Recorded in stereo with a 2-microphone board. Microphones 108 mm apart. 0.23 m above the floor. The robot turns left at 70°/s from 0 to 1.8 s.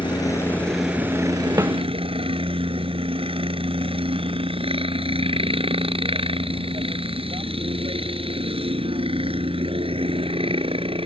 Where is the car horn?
I don't hear a car horn.